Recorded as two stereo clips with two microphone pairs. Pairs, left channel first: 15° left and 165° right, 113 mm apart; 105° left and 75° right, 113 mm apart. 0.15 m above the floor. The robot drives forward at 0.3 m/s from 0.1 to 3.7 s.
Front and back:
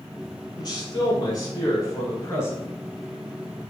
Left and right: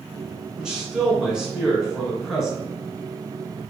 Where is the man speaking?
5° left, 1.8 m; by 2.6 s 10° left, 1.5 m.